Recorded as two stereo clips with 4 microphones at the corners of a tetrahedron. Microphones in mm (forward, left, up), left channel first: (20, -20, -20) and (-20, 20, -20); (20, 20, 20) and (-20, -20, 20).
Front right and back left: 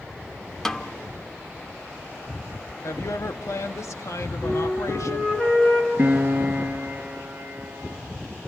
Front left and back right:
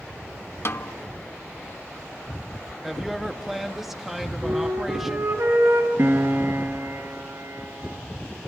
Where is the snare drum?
35° left, 0.8 m.